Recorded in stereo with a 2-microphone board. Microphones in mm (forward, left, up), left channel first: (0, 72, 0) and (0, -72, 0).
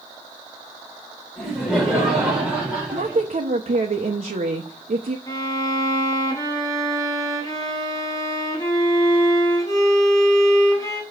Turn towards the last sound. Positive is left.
turn(degrees=25)  # may be behind; listen again after turning